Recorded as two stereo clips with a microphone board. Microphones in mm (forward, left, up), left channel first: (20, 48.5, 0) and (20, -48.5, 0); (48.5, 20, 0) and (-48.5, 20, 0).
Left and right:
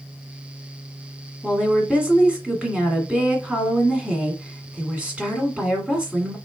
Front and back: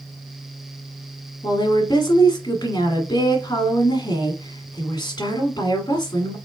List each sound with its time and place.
1.4 s a woman speaking: 15° right, 1.7 m